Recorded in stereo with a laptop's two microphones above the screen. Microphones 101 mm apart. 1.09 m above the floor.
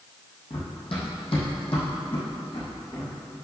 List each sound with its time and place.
0.5 s running footsteps: 65° left (ahead or behind), 2.5 m; by 3.1 s 70° left (ahead or behind), 4 m